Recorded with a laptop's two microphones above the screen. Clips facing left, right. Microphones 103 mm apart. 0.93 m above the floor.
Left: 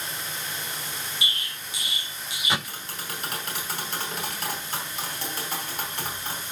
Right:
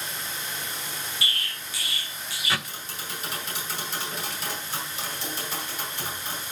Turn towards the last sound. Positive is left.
turn(degrees=60)  # may be behind; listen again after turning